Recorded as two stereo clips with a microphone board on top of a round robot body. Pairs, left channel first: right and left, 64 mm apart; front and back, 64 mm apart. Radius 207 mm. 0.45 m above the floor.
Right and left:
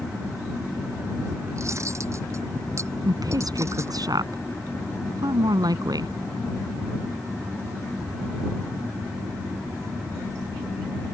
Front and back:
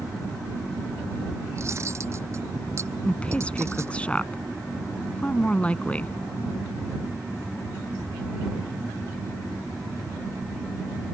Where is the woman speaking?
75° left.